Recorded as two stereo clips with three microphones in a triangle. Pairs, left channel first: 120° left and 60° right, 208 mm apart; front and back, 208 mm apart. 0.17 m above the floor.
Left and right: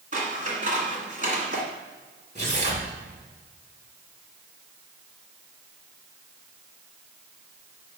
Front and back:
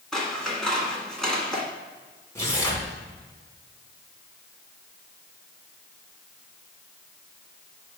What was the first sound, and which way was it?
Scissors, 85° right.